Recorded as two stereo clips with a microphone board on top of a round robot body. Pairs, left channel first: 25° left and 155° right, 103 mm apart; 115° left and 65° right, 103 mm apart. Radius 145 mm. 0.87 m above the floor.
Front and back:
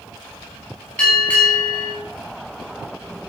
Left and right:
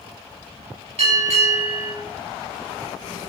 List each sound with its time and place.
1.0 s a bell: 55° right, 6.5 m